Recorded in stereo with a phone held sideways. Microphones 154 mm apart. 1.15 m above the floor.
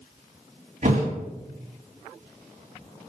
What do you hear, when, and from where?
0.8 s a thud: 55° right (ahead or behind), 1.7 m